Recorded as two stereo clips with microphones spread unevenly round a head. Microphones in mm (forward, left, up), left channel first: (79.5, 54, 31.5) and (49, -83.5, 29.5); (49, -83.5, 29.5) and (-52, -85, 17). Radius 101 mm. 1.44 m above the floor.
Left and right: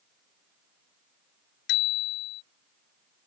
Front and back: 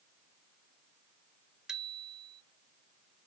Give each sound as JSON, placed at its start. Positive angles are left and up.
{"t": 1.7, "sound": "a bicycle bell", "azimuth_deg": 95}